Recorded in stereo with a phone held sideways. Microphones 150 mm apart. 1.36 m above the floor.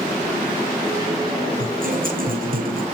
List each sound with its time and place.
1.6 s a guitar: 65° right (ahead or behind), 7.5 m